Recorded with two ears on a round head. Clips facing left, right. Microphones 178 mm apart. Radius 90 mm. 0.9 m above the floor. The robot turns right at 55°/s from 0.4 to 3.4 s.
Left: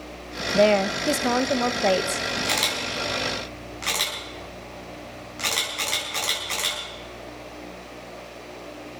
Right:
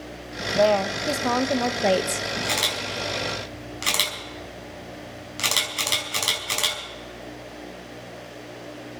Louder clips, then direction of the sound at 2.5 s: Even; 5° left (ahead or behind).